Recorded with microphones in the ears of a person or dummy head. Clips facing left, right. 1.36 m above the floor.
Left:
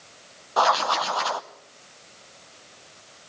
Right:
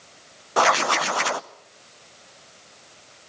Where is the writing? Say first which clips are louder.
Right 1 dB; 30° right (ahead or behind), 0.6 m.